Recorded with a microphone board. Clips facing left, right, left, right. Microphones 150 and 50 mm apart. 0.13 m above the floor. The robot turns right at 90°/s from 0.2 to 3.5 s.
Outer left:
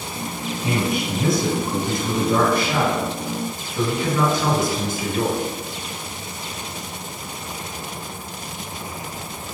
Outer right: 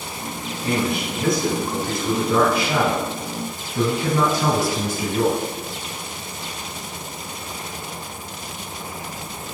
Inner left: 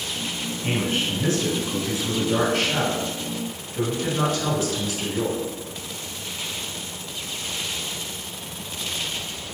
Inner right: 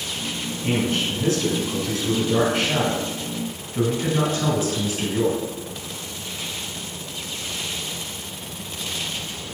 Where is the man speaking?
10° left (ahead or behind), 1.6 m; by 5.4 s 30° right (ahead or behind), 1.6 m.